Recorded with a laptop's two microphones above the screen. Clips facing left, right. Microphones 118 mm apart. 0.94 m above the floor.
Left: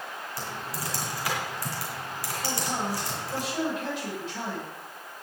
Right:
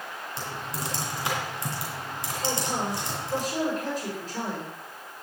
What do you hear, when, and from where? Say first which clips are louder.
0.4 s typing on a keyboard: right 2 dB; 25° right (ahead or behind), 2.5 m
2.4 s a man speaking: right 2 dB; 40° right (ahead or behind), 5 m